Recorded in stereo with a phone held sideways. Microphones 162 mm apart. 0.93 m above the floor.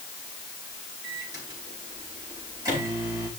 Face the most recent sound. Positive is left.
turn(degrees=-20)  # may be behind; listen again after turning